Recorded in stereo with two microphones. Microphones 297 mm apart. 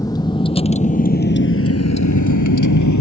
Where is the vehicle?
10° left (ahead or behind); by 3.0 s 70° left (ahead or behind).